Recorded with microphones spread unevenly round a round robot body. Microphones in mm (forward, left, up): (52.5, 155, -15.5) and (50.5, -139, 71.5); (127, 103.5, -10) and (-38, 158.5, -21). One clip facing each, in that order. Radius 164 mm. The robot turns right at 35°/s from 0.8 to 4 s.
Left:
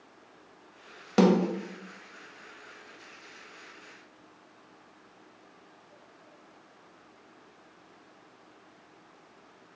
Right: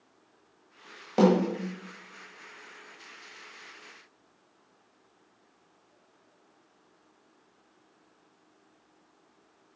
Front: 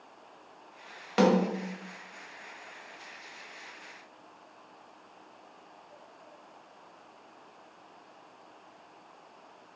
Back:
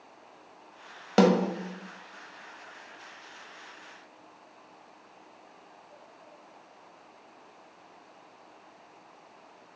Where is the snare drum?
130° left, 1.5 m; by 1.5 s 140° left, 1.5 m.